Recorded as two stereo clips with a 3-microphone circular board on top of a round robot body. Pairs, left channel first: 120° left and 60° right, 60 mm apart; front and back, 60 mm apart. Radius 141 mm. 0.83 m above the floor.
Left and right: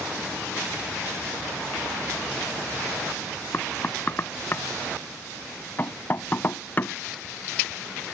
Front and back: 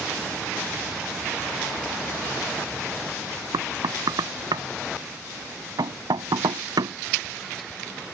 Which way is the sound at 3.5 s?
Straight behind.